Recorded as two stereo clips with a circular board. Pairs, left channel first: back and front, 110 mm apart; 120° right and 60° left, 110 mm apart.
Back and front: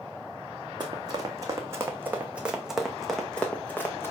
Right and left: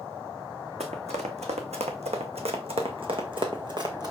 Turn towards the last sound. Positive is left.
turn(degrees=110)